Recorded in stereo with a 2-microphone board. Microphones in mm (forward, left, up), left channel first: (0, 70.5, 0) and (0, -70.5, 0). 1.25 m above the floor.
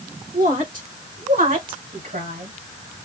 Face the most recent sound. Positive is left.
turn(degrees=-85)